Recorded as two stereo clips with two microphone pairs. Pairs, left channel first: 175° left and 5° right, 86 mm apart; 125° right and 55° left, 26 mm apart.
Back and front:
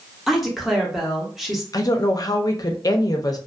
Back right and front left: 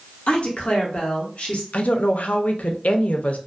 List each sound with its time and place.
0.3 s a woman speaking: 95° right, 0.9 m
1.7 s a woman speaking: 145° right, 0.5 m